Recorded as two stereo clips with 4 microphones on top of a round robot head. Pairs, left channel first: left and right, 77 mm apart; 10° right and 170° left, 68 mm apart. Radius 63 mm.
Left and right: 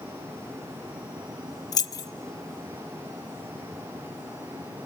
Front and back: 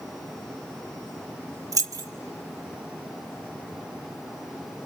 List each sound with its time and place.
1.7 s keys jangling: 130° left, 0.8 m